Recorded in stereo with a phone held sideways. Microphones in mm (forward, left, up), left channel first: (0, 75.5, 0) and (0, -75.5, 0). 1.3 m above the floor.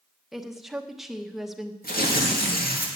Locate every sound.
0.3 s a woman speaking: centre (ahead or behind), 1.0 m
1.8 s tearing paper: 80° left, 2 m